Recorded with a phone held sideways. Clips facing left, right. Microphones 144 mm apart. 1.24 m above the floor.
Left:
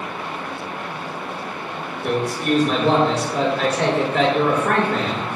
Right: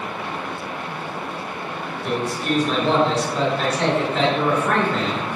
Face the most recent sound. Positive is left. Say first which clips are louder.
# left 3 dB
turn(degrees=75)  # may be behind; listen again after turning